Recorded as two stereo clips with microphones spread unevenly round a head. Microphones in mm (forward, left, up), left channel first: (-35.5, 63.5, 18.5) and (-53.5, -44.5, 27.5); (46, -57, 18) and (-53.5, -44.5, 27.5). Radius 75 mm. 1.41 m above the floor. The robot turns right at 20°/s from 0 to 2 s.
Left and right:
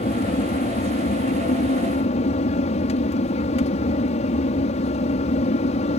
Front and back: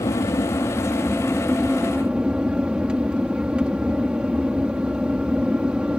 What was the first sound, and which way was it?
An aircraft, 50° left.